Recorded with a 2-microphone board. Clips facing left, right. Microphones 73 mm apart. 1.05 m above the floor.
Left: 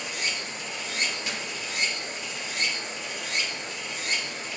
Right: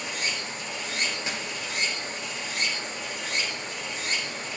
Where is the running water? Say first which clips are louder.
Right 1 dB; 45° right (ahead or behind), 1.1 m.